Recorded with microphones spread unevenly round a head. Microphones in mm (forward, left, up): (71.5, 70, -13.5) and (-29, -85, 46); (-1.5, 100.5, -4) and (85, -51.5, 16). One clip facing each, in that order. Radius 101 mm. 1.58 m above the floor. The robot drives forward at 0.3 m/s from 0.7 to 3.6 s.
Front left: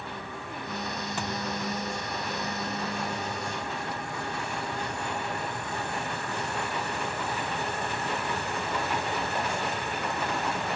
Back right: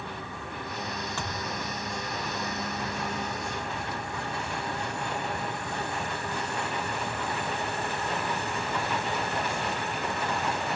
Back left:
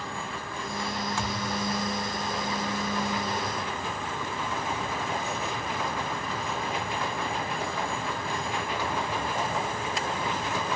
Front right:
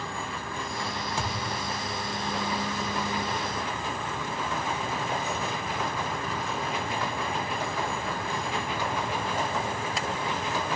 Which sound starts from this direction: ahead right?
A thud, at 1.2 s.